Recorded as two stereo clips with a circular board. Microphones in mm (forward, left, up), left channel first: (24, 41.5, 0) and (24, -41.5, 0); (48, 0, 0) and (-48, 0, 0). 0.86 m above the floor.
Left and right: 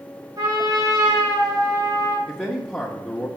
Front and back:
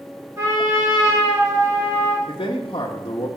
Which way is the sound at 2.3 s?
15° left.